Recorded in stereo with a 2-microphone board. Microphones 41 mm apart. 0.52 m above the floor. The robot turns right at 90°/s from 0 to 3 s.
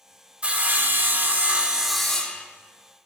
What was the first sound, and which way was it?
Sawing, 145° right.